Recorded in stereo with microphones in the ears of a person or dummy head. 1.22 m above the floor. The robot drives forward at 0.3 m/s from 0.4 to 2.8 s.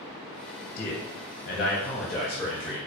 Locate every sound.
0.8 s a man speaking: 40° left (ahead or behind), 0.7 m; by 2.8 s 30° left (ahead or behind), 0.9 m